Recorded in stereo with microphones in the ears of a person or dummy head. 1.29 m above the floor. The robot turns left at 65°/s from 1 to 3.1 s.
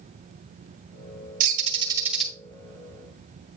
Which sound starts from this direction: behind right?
A bird, at 1.4 s.